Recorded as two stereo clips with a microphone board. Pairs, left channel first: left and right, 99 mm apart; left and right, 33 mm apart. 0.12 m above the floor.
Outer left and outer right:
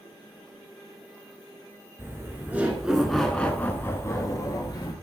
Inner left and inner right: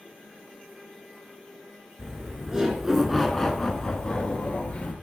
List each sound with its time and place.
2.0 s laughter: 25° right (ahead or behind), 2 m; by 4.9 s 40° left (ahead or behind), 2.5 m